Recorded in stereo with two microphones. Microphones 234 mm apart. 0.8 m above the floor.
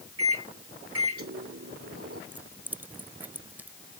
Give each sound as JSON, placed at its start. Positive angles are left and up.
{"t": 0.2, "sound": "a microwave", "side_deg": -80}
{"t": 2.3, "sound": "keys jangling", "side_deg": -10}